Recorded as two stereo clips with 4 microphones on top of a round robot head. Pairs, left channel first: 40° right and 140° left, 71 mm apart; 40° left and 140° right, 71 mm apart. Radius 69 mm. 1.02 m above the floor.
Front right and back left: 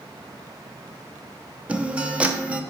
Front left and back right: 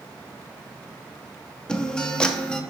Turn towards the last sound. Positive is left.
turn(degrees=100)